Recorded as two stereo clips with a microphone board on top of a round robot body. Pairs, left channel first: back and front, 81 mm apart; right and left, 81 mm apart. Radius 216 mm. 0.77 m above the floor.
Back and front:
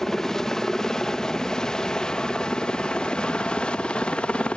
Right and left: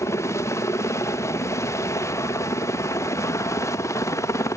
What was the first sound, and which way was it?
A helicopter, 100° right.